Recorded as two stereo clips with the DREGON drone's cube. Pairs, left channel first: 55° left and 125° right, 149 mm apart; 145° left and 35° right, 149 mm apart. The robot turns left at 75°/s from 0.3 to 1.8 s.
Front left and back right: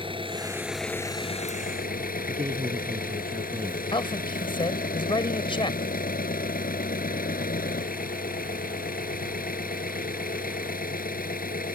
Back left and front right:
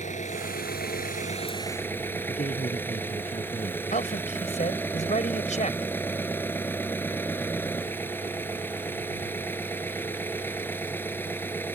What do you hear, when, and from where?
0.0 s an engine running: straight behind; by 11.8 s 70° left
2.3 s a man speaking: 175° right
3.9 s a man speaking: 110° left